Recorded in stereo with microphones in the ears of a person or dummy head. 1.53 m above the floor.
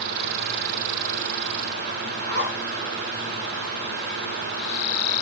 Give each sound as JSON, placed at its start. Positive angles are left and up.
{"t": 2.3, "sound": "a zipper", "side_deg": -50, "distance_m": 3.0}